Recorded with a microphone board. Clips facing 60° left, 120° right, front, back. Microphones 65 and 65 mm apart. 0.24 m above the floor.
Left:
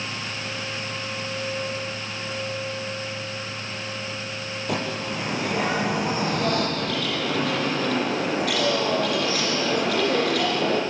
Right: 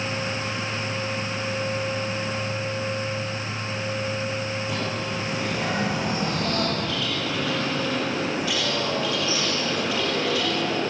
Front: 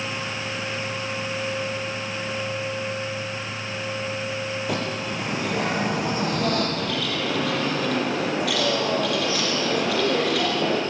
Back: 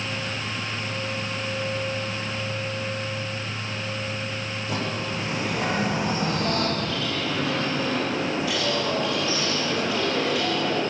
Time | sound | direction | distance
4.7 | a bird | 30° left | 7.5 m
6.8 | a bird | 25° left | 5 m